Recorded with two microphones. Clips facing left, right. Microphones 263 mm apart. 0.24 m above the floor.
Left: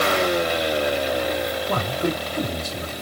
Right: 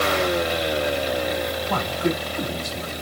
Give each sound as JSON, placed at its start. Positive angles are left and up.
{"t": 1.7, "sound": "a man speaking", "side_deg": 45, "distance_m": 1.9}